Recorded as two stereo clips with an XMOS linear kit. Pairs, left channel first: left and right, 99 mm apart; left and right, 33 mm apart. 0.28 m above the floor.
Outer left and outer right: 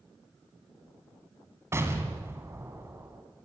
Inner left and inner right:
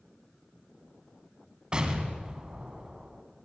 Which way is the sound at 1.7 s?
25° right (ahead or behind).